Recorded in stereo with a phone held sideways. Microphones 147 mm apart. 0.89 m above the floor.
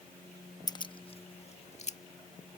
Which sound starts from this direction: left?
Keys jangling, at 0.7 s.